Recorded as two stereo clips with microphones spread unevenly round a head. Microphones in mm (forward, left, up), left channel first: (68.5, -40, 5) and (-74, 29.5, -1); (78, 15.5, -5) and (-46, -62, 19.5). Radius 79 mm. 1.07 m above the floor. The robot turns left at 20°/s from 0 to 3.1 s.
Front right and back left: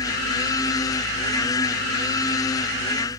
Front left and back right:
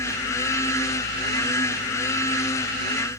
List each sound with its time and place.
Only background noise.